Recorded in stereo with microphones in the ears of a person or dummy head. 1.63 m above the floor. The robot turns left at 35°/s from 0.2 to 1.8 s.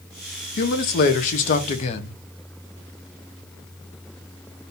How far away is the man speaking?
About 0.7 m.